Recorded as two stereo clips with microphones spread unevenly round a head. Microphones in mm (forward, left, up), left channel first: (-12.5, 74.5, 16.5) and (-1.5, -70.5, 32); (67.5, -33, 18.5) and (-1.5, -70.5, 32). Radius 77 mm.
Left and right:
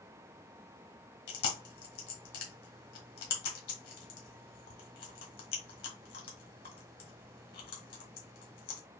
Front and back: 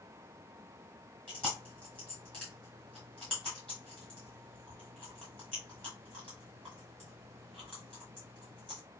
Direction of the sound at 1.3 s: 120° left.